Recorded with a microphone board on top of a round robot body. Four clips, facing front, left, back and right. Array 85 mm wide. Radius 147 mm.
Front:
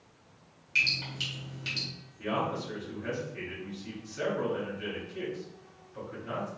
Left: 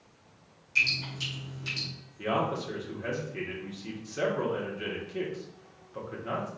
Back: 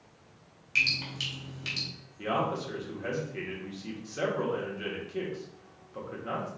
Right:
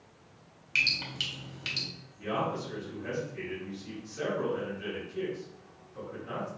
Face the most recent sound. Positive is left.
turn(degrees=135)